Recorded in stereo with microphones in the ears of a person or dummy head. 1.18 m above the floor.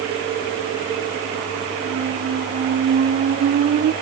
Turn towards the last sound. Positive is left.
turn(degrees=-45)  # may be behind; listen again after turning